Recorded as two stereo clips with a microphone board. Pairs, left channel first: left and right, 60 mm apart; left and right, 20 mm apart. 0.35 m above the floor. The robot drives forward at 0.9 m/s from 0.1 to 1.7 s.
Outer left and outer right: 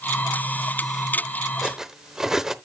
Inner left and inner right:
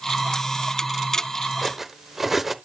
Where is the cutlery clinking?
5° right (ahead or behind), 0.7 m; by 2.5 s 10° right (ahead or behind), 0.6 m.